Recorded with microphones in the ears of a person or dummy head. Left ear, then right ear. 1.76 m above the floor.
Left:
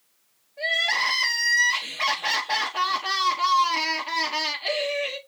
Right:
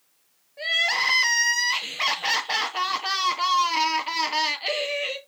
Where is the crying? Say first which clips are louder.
Even; 10° right (ahead or behind), 1.2 m.